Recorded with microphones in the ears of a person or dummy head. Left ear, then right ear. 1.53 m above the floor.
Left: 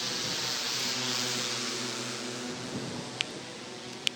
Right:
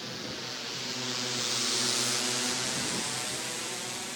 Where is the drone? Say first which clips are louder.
Left 5 dB; 20° left (ahead or behind); by 4.2 s 40° right (ahead or behind).